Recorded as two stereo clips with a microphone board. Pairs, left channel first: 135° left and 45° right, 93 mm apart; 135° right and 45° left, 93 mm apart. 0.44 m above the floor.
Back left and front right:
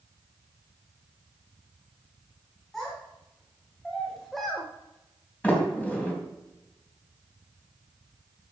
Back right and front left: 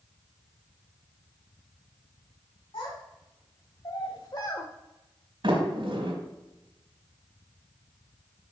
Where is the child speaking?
140° right, 3 m; by 4.7 s 135° right, 1.1 m.